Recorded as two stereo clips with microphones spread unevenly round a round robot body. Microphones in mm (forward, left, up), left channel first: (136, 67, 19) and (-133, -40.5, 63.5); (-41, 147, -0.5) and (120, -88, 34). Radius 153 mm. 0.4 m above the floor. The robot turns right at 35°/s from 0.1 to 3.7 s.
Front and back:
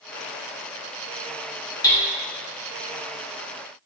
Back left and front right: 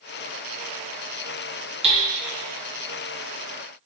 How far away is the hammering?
About 1.1 m.